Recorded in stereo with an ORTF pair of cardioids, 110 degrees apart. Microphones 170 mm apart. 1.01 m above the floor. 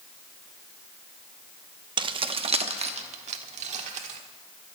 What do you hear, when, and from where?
2.0 s keys jangling: 30° right, 0.7 m; by 4.2 s 45° right, 1.8 m